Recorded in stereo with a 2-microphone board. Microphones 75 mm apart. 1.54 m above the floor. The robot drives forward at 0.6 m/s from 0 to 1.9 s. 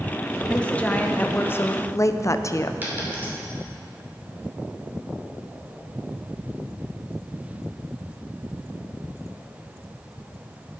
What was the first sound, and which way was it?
A woman speaking, 15° left (ahead or behind).